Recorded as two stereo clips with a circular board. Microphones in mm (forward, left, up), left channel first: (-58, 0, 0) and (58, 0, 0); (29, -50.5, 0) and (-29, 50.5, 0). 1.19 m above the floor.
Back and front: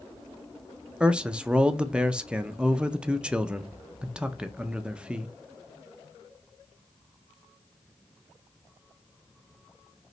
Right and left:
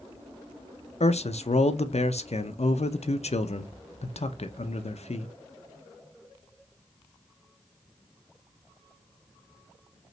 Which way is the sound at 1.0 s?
80° right.